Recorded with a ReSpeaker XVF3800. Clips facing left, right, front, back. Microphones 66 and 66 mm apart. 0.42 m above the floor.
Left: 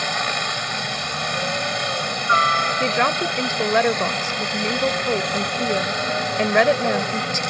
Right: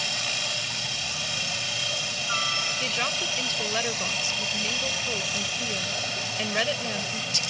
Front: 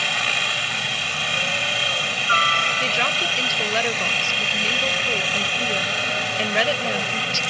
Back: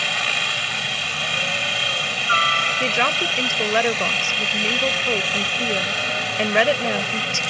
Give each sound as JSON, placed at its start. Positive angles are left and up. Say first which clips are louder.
{"t": 0.0, "sound": "a helicopter", "louder": "left 9 dB, even", "azimuth_deg": 90}
{"t": 2.8, "sound": "a woman speaking", "louder": "left 10 dB, back 2 dB", "azimuth_deg": 115}